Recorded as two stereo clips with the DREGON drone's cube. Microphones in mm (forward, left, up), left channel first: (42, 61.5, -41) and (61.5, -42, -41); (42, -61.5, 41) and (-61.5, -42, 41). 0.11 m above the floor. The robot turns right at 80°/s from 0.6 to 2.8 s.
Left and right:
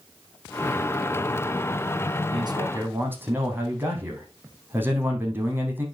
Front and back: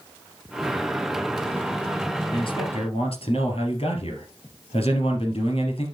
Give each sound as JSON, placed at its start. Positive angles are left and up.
{"t": 2.3, "sound": "a man speaking", "azimuth_deg": -50, "distance_m": 3.0}